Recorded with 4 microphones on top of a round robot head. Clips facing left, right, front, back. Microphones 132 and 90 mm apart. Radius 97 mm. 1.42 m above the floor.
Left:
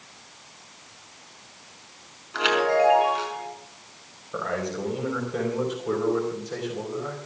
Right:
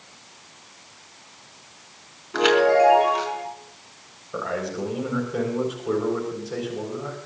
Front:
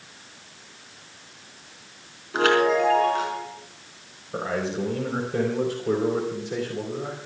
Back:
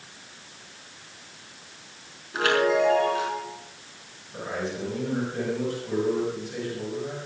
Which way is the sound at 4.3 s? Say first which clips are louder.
Right 1 dB, front 4 dB; 5° right.